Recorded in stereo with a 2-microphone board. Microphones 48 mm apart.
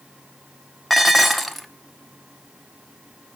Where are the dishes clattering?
Centre (ahead or behind), 1.1 m.